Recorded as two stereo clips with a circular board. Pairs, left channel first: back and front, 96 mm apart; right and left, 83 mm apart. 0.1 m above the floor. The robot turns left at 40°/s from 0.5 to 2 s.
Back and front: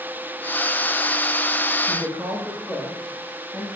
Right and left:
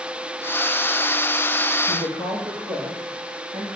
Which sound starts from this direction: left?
A woman speaking, at 1.9 s.